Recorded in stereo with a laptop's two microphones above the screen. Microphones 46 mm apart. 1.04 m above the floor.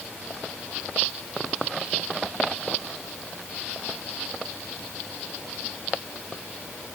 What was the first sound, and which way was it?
Only background noise.